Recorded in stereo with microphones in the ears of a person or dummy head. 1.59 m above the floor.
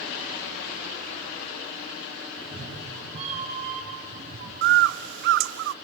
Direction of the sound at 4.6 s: 65° right (ahead or behind).